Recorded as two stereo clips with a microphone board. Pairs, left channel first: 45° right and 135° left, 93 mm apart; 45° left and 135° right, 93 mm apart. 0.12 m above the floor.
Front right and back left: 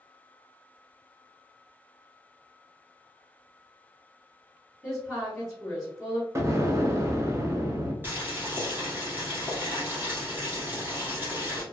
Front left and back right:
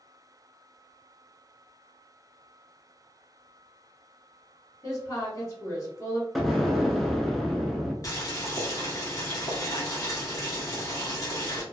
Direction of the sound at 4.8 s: 45° left.